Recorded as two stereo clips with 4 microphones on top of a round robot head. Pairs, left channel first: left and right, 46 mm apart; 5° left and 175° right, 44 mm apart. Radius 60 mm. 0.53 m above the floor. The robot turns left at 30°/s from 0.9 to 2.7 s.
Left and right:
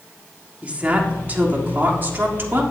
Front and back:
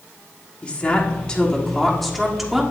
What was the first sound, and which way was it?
A woman speaking, 45° right.